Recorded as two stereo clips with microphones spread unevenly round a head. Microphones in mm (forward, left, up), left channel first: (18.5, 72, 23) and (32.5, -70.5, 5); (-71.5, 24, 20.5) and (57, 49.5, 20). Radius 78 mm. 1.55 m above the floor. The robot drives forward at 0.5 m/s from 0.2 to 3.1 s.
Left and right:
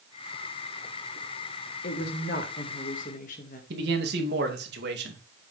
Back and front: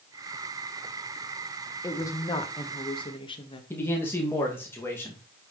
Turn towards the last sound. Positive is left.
turn(degrees=-90)